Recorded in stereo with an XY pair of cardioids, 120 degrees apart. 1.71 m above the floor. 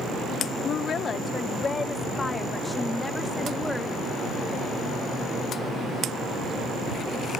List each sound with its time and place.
0.6 s a woman speaking: 55° left; by 4.9 s 5° left